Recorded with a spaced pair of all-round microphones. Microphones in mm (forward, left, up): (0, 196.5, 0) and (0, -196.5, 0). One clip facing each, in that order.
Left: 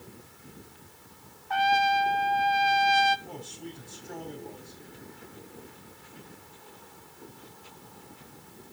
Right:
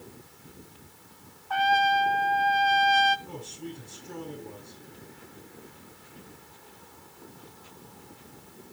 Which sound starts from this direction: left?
A trumpet, at 1.5 s.